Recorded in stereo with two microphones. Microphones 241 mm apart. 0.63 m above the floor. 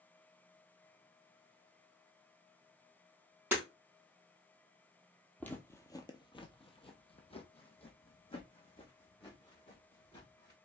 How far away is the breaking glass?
About 2.5 m.